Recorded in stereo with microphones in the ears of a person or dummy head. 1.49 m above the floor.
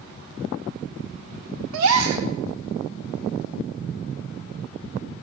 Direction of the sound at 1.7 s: 80° right.